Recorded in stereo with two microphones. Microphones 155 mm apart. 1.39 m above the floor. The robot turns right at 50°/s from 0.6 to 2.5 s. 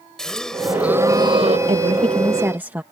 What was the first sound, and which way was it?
A gasp, 175° left.